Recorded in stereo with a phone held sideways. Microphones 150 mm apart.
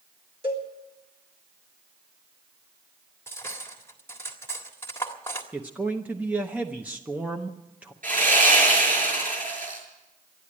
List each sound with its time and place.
0.4 s a cowbell: 40° right (ahead or behind), 3.5 m
3.3 s cutlery clinking: 15° left (ahead or behind), 1.6 m
5.5 s a man speaking: 10° right (ahead or behind), 0.7 m
8.0 s sawing: 65° right (ahead or behind), 6.5 m